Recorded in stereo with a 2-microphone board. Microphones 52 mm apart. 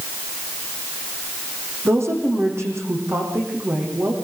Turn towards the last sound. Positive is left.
turn(degrees=-60)  # may be behind; listen again after turning